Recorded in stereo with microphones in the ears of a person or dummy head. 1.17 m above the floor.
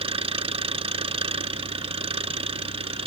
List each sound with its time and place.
0.0 s an engine running: 30° right (ahead or behind)